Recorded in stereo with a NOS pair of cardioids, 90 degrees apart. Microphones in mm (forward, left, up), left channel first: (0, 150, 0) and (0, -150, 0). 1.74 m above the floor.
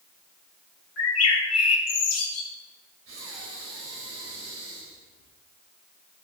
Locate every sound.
1.0 s a bird: 55° left, 2.5 m
3.1 s breathing: 50° right, 4 m